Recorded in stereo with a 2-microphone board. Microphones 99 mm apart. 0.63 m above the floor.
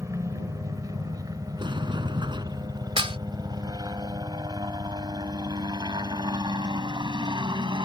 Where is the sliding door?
50° right (ahead or behind).